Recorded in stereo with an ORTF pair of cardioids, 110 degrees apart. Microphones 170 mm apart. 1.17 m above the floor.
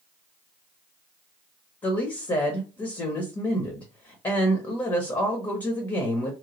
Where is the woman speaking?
25° left, 0.8 m.